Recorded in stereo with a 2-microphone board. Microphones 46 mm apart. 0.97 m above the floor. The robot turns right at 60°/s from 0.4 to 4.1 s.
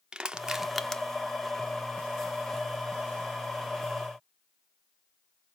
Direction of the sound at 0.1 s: 20° right (ahead or behind).